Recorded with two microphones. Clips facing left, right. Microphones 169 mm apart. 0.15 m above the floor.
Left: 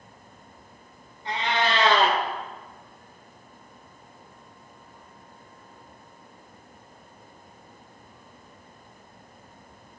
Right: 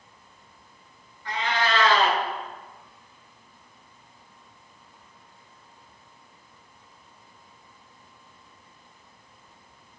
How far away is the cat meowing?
About 1.0 m.